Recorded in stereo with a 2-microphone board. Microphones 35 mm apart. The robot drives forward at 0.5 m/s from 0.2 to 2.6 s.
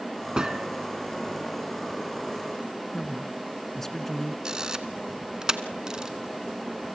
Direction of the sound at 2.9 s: 10° left (ahead or behind).